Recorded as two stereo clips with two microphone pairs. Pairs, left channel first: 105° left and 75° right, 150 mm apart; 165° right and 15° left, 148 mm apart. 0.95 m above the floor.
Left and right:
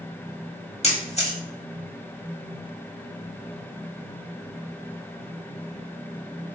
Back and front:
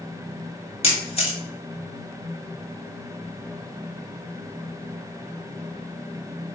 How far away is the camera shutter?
About 1.3 m.